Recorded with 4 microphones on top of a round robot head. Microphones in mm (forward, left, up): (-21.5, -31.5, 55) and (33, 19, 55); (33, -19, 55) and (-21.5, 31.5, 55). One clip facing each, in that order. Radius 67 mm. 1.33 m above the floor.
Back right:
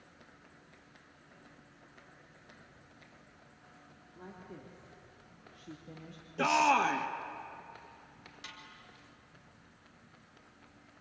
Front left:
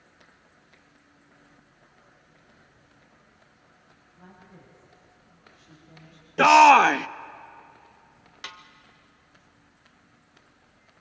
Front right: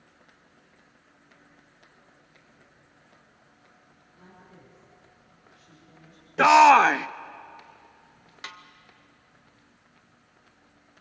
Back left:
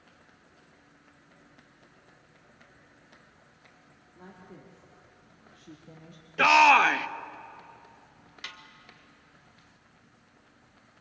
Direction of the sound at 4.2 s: 165° right.